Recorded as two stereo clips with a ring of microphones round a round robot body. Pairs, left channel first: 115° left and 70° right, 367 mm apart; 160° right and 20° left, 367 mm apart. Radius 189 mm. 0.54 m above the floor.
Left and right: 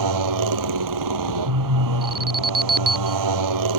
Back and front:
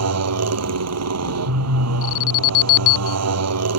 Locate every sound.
0.0 s a motorcycle: 30° right
2.0 s an alarm: 125° right